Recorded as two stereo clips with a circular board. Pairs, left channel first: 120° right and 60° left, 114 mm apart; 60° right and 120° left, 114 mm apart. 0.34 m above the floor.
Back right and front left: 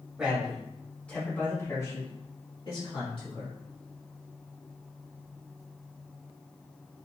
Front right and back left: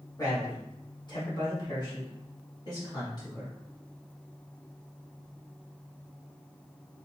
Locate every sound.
0.2 s a man speaking: 15° right, 1.5 m; by 3.5 s 110° right, 2 m